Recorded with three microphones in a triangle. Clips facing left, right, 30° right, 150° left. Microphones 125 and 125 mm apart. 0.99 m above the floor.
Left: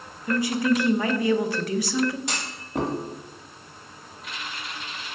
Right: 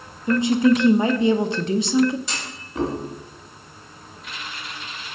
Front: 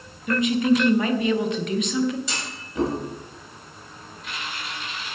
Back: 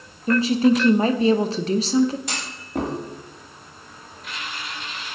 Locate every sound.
0.3 s a woman speaking: 155° right, 0.5 m
2.3 s a clunk: 120° left, 1.6 m